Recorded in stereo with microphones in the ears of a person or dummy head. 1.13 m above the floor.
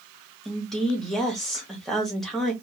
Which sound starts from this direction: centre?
A woman speaking, at 0.5 s.